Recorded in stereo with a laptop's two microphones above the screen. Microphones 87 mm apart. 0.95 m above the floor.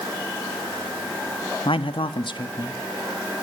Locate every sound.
1.6 s a man speaking: 80° left, 1.1 m; by 2.8 s 55° left (ahead or behind), 1.4 m